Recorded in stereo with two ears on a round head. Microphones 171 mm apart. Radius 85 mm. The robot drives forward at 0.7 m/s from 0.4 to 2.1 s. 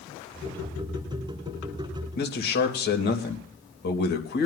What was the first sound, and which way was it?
A man speaking, 55° left (ahead or behind).